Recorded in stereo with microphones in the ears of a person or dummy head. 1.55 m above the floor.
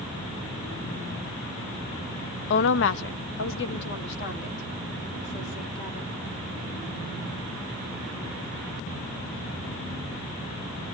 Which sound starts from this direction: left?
A woman speaking, at 2.5 s.